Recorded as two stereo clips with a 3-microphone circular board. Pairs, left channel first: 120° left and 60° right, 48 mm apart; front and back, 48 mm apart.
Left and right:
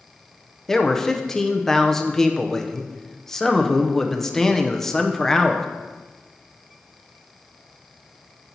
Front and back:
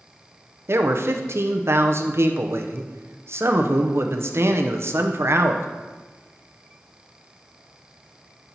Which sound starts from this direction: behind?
A man speaking, at 0.7 s.